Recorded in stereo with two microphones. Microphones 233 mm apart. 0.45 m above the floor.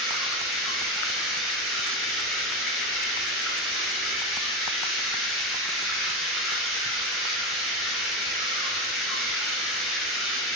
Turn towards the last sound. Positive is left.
turn(degrees=0)  # may be behind; listen again after turning